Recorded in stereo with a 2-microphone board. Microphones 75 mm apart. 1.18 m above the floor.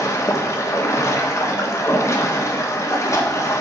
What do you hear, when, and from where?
0.0 s running water: 40° left (ahead or behind), 1.1 m